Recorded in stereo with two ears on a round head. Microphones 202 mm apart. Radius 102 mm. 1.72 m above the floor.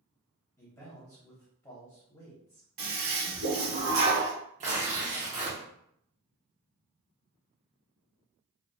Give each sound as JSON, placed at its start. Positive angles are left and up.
{"t": 0.6, "sound": "a man speaking", "side_deg": 15, "distance_m": 0.8}
{"t": 2.8, "sound": "a toilet flushing", "side_deg": -65, "distance_m": 1.1}
{"t": 4.6, "sound": "tearing paper", "side_deg": -30, "distance_m": 0.9}